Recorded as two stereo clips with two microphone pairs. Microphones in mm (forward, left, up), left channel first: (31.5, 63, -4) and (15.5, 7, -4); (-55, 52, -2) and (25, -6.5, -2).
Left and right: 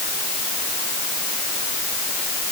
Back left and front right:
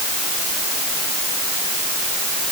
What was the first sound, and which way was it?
Only background noise.